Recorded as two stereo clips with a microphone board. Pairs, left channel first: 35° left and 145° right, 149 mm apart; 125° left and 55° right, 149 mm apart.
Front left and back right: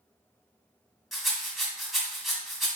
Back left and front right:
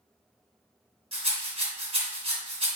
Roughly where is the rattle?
Ahead right.